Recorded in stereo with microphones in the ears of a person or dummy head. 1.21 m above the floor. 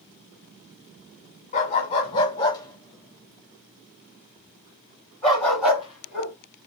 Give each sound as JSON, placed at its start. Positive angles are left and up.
{"t": 1.5, "sound": "a dog barking", "side_deg": 40, "distance_m": 1.6}